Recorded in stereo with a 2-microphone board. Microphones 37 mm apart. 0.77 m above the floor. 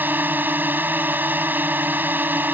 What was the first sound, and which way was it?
A drone, 55° right (ahead or behind).